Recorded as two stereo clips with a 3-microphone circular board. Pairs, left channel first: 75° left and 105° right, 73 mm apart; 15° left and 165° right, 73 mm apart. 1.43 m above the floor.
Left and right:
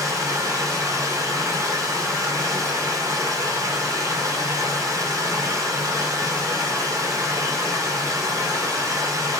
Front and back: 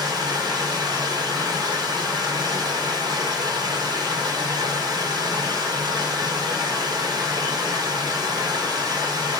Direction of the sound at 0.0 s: 145° right.